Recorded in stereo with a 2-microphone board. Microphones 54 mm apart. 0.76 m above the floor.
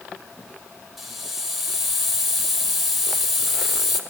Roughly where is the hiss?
Centre.